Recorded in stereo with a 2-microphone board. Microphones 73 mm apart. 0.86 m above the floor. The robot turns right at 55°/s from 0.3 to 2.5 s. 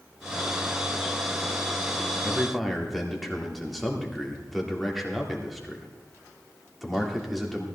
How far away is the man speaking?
About 2 m.